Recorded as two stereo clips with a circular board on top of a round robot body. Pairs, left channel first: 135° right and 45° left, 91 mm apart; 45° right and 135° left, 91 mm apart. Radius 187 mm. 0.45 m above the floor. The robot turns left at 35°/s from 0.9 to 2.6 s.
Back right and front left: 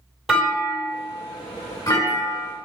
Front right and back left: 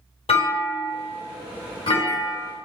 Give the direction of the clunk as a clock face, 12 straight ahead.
1 o'clock.